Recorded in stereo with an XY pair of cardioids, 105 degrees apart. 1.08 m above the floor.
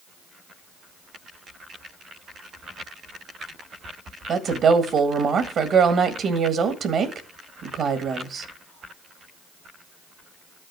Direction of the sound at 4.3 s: 60° right.